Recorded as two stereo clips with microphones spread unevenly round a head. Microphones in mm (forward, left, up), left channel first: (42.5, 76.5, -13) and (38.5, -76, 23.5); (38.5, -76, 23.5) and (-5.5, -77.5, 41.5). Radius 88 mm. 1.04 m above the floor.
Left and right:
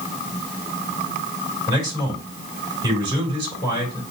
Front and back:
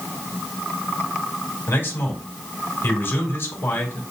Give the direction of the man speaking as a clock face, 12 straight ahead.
1 o'clock.